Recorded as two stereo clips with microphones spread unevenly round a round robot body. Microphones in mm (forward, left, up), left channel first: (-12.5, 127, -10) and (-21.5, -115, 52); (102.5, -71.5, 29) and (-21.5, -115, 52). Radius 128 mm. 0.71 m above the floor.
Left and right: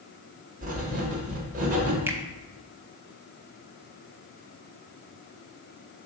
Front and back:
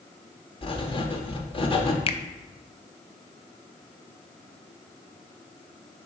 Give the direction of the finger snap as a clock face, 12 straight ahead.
12 o'clock.